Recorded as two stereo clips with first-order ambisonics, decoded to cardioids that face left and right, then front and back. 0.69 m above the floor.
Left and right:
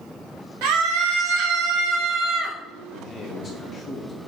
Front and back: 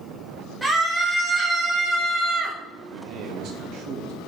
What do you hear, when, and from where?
0.6 s a scream: 95° right, 2 m; by 2.6 s 135° right, 1.7 m
2.9 s a man speaking: 155° left, 0.9 m